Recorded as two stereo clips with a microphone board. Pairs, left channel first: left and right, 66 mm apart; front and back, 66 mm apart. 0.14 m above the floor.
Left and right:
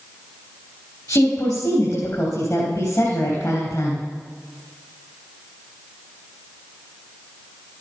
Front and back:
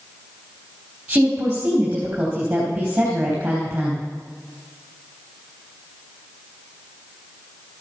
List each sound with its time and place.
1.1 s a woman speaking: 110° left, 3.5 m